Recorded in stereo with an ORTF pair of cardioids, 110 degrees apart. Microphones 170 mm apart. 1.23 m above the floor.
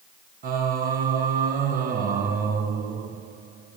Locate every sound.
0.4 s singing: 60° right, 1.0 m